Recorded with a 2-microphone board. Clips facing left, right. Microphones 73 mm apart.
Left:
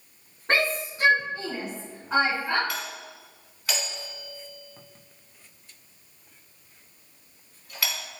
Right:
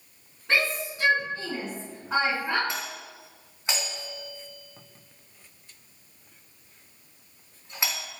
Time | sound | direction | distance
0.5 | a shout | 40° left (ahead or behind) | 3.5 m
2.7 | a doorbell | 25° right (ahead or behind) | 4.5 m